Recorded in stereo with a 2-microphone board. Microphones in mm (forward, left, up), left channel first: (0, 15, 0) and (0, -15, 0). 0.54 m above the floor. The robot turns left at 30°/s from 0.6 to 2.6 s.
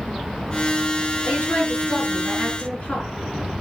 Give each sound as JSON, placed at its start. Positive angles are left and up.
{"t": 1.2, "sound": "a woman speaking", "azimuth_deg": 85, "distance_m": 6.0}